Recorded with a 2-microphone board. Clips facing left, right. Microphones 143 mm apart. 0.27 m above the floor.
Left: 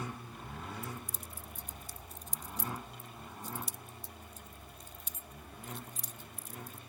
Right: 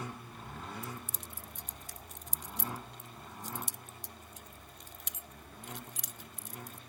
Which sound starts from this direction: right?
Keys jangling, at 0.8 s.